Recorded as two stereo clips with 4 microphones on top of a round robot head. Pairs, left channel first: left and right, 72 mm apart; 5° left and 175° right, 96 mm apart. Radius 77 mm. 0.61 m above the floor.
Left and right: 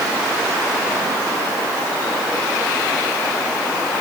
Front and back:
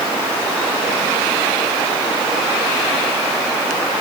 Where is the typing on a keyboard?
I don't hear typing on a keyboard.